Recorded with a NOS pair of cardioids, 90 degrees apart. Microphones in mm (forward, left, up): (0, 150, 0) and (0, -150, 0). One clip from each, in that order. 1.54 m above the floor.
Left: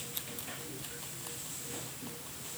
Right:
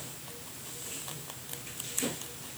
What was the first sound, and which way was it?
Only background noise.